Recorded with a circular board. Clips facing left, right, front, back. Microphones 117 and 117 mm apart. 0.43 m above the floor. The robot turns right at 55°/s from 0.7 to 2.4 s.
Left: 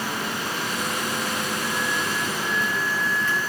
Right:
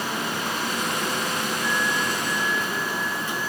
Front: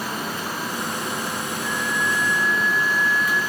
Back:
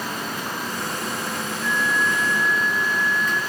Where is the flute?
50° left, 0.9 m; by 3.4 s 95° left, 0.9 m.